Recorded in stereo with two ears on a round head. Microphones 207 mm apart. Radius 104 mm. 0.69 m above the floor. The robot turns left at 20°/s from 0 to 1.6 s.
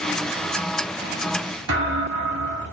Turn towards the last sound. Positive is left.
turn(degrees=-65)  # may be behind; listen again after turning